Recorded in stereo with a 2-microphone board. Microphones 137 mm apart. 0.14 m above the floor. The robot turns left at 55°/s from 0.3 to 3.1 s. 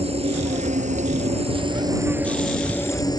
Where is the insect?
60° right; by 3.2 s 145° left.